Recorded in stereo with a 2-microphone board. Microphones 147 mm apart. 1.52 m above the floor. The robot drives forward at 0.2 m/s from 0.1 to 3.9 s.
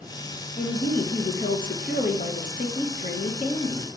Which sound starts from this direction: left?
A woman speaking, at 0.6 s.